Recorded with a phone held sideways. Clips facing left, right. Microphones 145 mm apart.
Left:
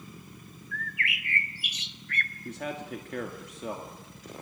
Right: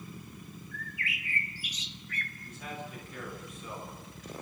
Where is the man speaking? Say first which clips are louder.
Left 7 dB; 75° left (ahead or behind), 2.5 m.